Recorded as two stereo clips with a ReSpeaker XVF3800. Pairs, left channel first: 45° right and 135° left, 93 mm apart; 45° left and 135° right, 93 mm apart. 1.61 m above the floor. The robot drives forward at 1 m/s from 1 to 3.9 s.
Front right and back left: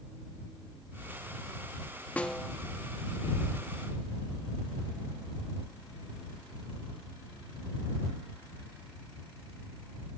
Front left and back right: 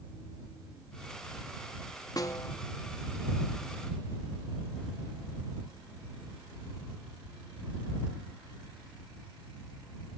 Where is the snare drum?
25° left, 0.8 m; by 2.6 s 60° left, 0.6 m.